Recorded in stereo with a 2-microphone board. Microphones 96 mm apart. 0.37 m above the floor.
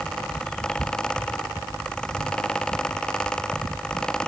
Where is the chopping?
I don't hear chopping.